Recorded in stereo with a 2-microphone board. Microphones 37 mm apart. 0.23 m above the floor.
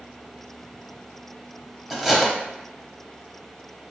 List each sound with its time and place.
1.9 s cutlery clinking: 5° right (ahead or behind), 0.5 m